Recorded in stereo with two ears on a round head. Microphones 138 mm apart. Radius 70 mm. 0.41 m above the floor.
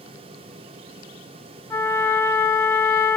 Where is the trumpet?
20° left (ahead or behind), 0.7 m.